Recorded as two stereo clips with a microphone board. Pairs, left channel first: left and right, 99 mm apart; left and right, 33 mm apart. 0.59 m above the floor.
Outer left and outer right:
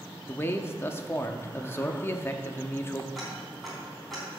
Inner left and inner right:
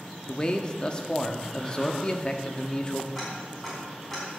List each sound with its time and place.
0.3 s a man speaking: 25° left (ahead or behind), 0.8 m
3.1 s ticking: centre (ahead or behind), 3.5 m